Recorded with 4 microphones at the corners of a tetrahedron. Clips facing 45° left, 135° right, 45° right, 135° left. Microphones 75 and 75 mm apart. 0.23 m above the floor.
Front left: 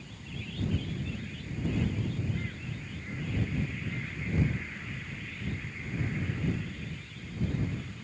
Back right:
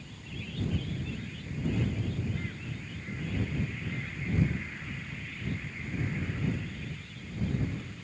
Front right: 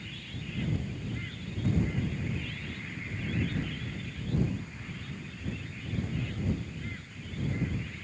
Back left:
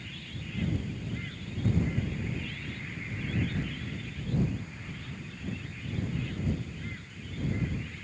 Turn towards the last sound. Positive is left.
No sound to turn to.